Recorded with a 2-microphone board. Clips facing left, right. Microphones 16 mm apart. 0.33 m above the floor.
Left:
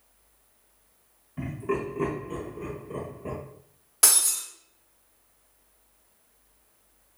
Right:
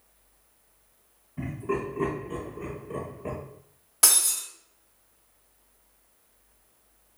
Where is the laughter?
35° left (ahead or behind), 1.1 m; by 3.4 s 30° right (ahead or behind), 1.0 m.